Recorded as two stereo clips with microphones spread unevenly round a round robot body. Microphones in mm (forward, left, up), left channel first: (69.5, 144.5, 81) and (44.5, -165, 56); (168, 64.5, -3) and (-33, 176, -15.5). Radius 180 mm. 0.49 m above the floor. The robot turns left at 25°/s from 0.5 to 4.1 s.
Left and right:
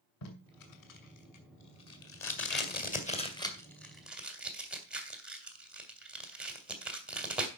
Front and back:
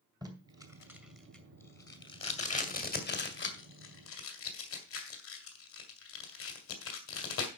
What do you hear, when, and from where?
0.2 s tape being pulled: 80° left, 2 m; by 7.5 s 10° right, 2 m